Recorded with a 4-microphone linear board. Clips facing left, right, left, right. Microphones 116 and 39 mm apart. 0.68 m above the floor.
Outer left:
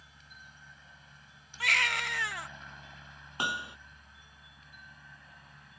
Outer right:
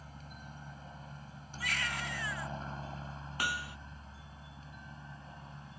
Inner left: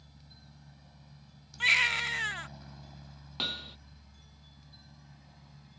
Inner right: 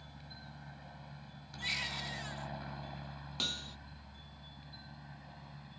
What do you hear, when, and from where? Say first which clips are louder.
0.0 s a helicopter: outer right 6 dB, inner right 6 dB; 45° right (ahead or behind); by 5.8 s 30° right (ahead or behind)
1.6 s a baby crying: outer left 5 dB, inner left 13 dB; 75° left (ahead or behind)
3.4 s hammering: outer left 2 dB, inner left 3 dB; 20° left (ahead or behind)